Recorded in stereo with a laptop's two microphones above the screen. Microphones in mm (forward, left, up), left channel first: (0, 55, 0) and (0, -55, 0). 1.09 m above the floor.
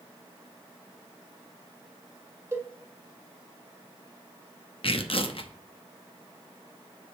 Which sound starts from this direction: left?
Tearing paper, at 4.8 s.